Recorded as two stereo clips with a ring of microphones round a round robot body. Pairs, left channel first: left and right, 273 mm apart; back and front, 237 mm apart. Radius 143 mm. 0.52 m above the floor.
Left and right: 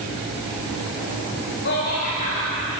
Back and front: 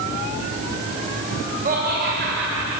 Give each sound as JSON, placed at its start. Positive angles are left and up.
{"t": 1.6, "sound": "laughter", "azimuth_deg": 50, "distance_m": 2.5}